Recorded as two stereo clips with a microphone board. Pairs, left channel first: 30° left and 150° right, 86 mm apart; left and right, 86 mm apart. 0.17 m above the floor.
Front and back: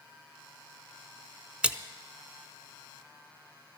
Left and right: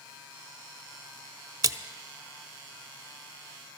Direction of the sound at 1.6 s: 80° right.